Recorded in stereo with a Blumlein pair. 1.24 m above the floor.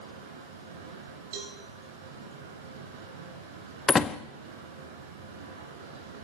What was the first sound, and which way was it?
Running water, 60° right.